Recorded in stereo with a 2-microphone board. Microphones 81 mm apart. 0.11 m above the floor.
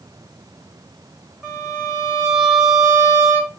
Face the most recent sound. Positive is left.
turn(degrees=-5)  # may be behind; listen again after turning